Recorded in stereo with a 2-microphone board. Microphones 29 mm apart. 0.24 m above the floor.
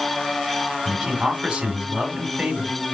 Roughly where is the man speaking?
Right.